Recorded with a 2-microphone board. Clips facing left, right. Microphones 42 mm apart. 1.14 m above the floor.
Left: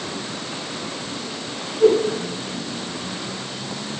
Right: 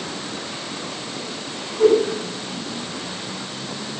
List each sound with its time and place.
1.8 s a whoosh: 75° right (ahead or behind), 9 m